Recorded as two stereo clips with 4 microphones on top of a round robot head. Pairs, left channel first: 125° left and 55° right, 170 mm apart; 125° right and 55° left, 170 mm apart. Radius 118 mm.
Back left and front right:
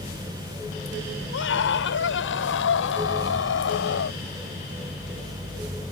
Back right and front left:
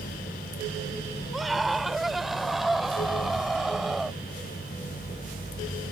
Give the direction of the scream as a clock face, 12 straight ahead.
7 o'clock.